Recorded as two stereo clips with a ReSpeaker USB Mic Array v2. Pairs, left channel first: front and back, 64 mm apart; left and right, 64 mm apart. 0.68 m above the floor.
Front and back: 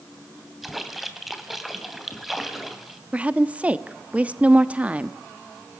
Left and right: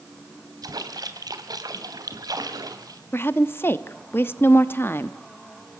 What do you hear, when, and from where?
0.6 s a splash: 90° right, 2.5 m
3.1 s a woman speaking: 120° left, 0.9 m